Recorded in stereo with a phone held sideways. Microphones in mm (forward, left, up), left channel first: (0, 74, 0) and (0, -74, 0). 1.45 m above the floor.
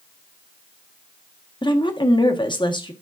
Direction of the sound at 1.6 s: 35° left (ahead or behind).